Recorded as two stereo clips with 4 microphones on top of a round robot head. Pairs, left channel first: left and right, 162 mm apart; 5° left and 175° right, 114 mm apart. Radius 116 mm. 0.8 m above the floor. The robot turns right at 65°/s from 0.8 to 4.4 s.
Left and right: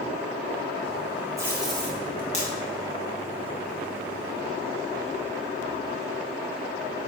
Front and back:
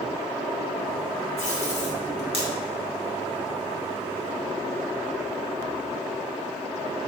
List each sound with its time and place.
1.4 s tape being pulled: 20° right, 2.5 m; by 2.5 s 50° left, 2.5 m